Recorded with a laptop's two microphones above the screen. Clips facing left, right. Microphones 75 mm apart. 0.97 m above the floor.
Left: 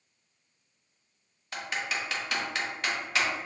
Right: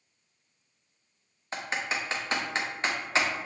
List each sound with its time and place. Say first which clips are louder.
1.5 s typing on a keyboard: right 1 dB; 30° right (ahead or behind), 0.6 m